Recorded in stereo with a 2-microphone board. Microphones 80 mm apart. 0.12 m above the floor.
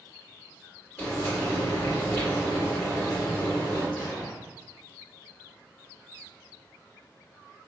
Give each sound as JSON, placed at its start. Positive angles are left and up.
{"t": 1.0, "sound": "frying", "side_deg": 15, "distance_m": 1.7}
{"t": 4.0, "sound": "an explosion", "side_deg": 20, "distance_m": 1.8}